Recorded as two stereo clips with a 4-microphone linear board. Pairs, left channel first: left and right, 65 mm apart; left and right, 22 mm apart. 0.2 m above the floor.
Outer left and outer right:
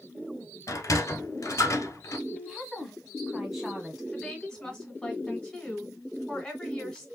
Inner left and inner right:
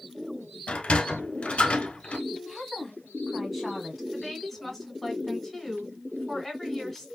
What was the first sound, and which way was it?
A sliding door, 55° left (ahead or behind).